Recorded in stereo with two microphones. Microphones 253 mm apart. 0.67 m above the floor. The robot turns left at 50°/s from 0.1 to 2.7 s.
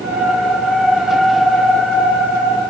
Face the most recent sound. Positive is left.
No sound to turn to.